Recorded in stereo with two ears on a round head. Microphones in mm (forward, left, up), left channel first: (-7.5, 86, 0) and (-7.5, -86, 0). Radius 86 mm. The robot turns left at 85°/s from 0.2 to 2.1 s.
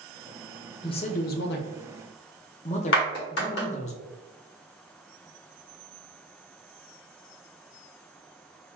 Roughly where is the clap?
Left.